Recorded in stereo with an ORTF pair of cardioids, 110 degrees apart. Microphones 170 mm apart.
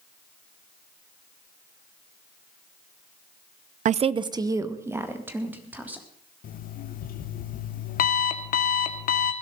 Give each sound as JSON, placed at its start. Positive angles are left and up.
{"t": 3.9, "sound": "a woman speaking", "azimuth_deg": -50, "distance_m": 0.6}
{"t": 6.4, "sound": "an alarm clock", "azimuth_deg": 60, "distance_m": 1.8}